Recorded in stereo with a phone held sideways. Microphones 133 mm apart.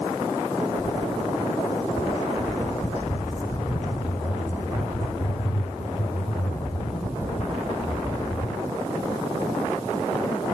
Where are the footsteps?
25° left (ahead or behind), 4 m; by 8.5 s 55° left (ahead or behind), 7 m.